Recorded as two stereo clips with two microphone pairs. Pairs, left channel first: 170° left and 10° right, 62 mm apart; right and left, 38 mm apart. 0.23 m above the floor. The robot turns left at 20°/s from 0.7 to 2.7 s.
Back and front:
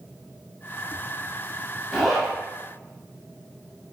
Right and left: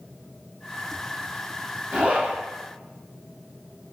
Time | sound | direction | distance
1.9 | a zipper | 80° left | 0.8 m